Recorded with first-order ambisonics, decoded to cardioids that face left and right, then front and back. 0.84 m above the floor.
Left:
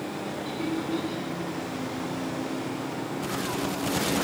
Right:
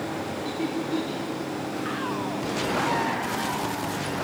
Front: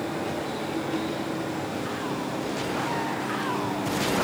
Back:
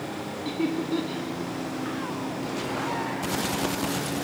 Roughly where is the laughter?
Behind.